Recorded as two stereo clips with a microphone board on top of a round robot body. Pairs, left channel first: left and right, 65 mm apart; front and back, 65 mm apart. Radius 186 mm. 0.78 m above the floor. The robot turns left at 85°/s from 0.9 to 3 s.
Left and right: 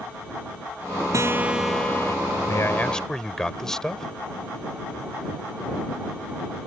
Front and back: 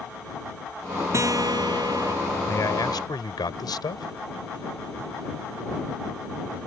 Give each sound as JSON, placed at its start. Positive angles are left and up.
{"t": 1.1, "sound": "a guitar", "azimuth_deg": -135}
{"t": 2.5, "sound": "a man speaking", "azimuth_deg": 50}